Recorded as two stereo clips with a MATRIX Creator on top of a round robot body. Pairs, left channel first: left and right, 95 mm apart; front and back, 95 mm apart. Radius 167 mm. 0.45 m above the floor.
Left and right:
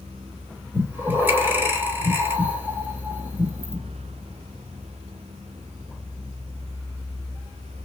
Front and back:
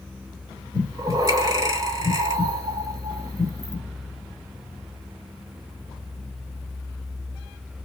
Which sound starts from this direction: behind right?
Breathing, at 0.7 s.